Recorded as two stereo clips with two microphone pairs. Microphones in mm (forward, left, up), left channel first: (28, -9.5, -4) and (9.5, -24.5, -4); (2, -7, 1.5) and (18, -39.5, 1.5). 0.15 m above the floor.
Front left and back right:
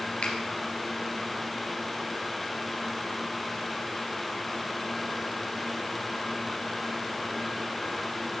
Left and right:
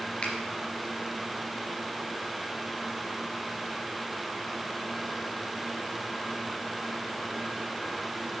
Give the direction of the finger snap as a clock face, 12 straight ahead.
10 o'clock.